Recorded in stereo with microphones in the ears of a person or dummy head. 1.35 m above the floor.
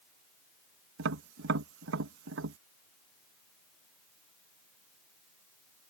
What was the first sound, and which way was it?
Tapping, 75° right (ahead or behind).